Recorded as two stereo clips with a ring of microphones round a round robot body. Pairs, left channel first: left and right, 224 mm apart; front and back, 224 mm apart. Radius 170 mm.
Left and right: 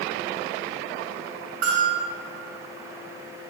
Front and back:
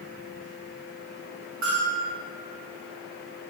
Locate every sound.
1.6 s a bell: 135° right, 6 m